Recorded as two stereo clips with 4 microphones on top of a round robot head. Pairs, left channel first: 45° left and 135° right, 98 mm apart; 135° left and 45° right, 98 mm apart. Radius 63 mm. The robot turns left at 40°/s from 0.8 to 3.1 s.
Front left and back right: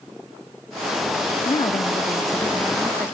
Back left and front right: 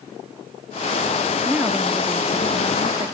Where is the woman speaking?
35° left, 0.9 m; by 3.1 s 35° right, 0.9 m.